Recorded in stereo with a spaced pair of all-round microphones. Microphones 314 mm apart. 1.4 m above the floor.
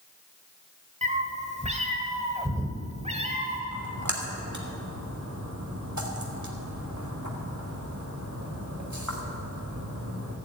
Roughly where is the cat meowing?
Right.